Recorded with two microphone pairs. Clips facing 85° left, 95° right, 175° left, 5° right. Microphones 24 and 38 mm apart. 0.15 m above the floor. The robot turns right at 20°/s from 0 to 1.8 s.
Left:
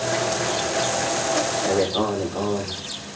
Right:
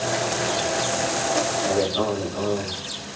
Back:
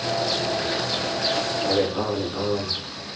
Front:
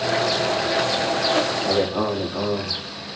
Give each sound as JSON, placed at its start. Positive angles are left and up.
{"t": 1.7, "sound": "a man speaking", "azimuth_deg": 20, "distance_m": 5.5}